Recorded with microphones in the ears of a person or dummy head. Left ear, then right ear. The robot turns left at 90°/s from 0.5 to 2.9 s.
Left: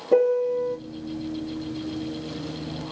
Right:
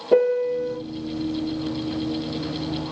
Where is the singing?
I don't hear singing.